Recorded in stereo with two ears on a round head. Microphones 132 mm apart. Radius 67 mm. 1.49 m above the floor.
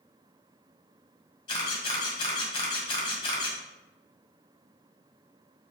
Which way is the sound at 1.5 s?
35° left (ahead or behind).